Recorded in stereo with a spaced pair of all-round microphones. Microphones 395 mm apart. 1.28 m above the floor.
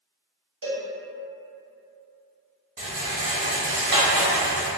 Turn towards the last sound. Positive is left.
turn(degrees=-55)  # may be behind; listen again after turning